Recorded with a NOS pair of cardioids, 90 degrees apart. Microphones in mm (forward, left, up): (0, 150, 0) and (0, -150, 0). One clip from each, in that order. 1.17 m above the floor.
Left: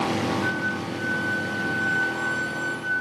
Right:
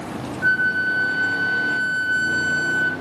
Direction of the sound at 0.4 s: 50° right.